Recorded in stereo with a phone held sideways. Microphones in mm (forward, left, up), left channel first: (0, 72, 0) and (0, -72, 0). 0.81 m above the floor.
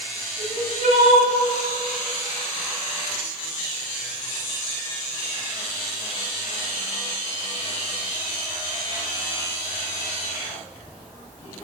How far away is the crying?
About 5.5 m.